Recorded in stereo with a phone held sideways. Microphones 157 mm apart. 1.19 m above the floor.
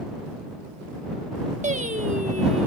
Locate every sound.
1.6 s singing: 50° right (ahead or behind)